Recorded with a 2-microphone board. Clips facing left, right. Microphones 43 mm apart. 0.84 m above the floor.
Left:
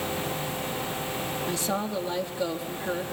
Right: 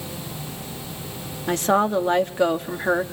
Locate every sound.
1.5 s a woman speaking: 60° right (ahead or behind), 1.6 m